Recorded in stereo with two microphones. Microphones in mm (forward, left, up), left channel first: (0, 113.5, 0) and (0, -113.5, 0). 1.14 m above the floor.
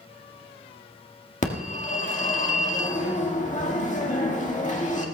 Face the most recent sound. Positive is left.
turn(degrees=35)  # may be behind; listen again after turning